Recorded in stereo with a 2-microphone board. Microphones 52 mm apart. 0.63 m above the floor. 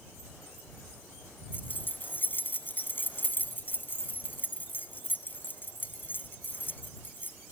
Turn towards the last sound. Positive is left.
turn(degrees=40)  # may be behind; listen again after turning